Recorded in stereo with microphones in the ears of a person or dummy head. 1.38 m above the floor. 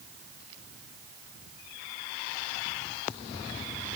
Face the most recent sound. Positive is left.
No sound to turn to.